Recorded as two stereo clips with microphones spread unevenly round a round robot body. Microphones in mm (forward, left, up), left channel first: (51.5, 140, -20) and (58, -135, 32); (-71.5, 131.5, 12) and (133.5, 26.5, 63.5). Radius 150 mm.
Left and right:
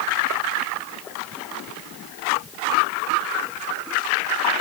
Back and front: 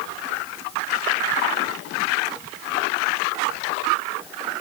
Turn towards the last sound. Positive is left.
No sound to turn to.